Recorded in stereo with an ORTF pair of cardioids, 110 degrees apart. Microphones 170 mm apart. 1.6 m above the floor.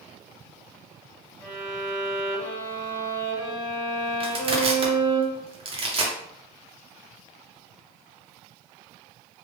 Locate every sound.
1.4 s a violin: 10° left, 1.8 m
4.2 s crushing: 35° right, 1.0 m